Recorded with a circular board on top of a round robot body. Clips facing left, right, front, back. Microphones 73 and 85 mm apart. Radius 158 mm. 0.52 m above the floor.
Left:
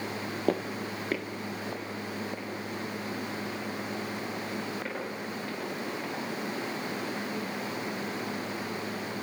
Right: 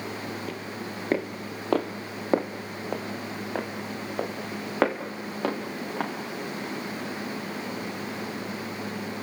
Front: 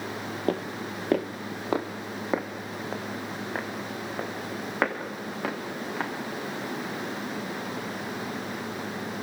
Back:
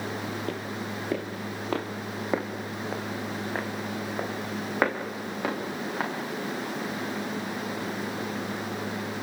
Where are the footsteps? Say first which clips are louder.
Left 5 dB, front 3 dB; 45° left, 0.8 m; by 6.1 s 95° right, 5.5 m.